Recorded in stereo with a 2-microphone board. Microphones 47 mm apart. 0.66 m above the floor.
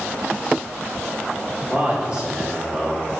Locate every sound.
1.7 s a man speaking: 15° right (ahead or behind), 1.8 m